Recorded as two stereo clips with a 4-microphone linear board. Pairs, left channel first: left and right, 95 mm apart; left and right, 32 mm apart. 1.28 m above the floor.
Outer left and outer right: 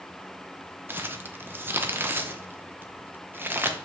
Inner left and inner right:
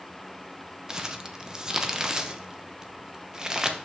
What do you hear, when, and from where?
0.9 s crumpling: 20° right (ahead or behind), 0.8 m